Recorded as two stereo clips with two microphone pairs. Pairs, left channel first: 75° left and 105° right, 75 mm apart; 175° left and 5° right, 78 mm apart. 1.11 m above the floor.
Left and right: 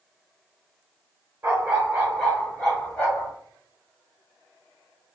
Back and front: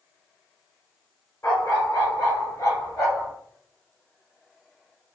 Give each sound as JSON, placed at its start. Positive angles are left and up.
{"t": 1.4, "sound": "a dog barking", "azimuth_deg": -150, "distance_m": 1.2}